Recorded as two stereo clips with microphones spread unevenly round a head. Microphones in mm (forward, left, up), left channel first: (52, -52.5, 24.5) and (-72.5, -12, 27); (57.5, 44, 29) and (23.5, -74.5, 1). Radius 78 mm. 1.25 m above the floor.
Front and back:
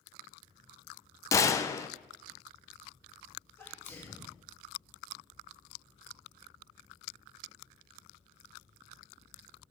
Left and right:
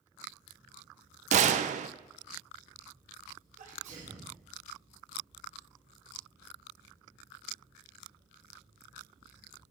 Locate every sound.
1.3 s a gunshot: 85° right, 0.6 m
3.6 s a sneeze: 90° right, 2.5 m